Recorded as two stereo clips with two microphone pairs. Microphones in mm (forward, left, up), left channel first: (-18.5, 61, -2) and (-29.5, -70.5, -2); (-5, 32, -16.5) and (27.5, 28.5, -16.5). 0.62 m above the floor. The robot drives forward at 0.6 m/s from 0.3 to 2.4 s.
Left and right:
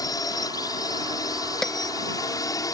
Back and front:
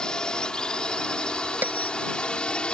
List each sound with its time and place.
0.0 s a drone: 125° left; by 2.8 s 130° left
1.6 s a bell: straight ahead